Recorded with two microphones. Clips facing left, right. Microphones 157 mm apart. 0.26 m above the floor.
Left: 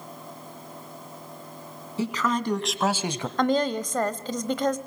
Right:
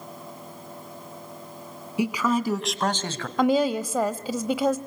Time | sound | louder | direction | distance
2.0 | a man speaking | right 3 dB | 15° right (ahead or behind) | 2.5 m
3.4 | a woman speaking | right 3 dB | 10° right (ahead or behind) | 0.9 m